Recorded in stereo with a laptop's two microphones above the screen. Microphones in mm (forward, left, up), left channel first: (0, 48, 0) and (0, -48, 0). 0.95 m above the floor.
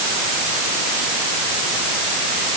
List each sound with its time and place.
Only background noise.